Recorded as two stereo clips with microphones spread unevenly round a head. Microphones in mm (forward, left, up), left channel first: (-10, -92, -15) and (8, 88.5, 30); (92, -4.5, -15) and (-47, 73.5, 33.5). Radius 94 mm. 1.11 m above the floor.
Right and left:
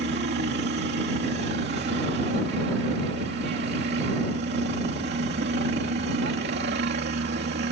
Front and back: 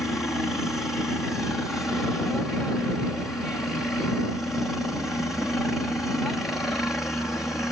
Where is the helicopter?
50° left.